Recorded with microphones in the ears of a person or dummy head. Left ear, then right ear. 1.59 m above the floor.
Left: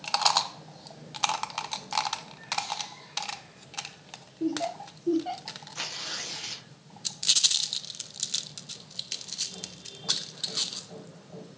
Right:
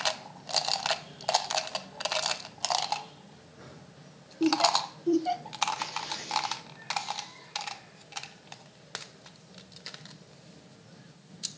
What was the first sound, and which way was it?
Laughter, 50° right (ahead or behind).